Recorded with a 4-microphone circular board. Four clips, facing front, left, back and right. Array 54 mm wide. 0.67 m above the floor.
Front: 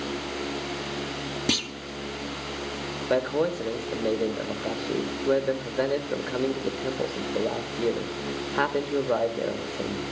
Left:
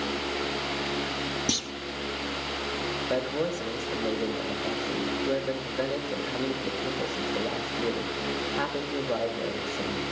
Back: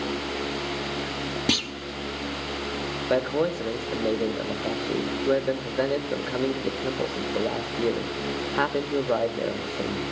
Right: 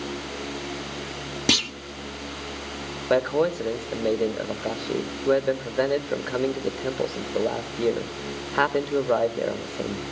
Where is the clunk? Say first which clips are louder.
Right 8 dB, back 2 dB; 105° right, 0.8 m.